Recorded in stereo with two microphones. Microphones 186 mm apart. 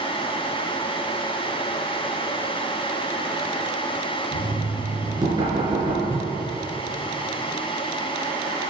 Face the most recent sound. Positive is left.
turn(degrees=30)  # may be behind; listen again after turning